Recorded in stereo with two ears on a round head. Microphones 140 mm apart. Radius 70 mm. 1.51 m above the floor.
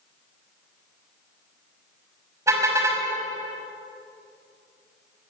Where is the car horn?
20° right (ahead or behind), 5.5 m.